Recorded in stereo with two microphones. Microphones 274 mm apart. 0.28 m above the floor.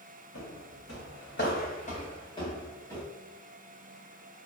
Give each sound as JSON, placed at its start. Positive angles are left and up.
{"t": 0.3, "sound": "footsteps", "side_deg": 75, "distance_m": 0.9}